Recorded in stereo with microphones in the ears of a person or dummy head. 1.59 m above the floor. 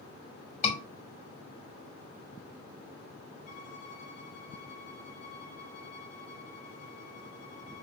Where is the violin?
60° left (ahead or behind), 2 m.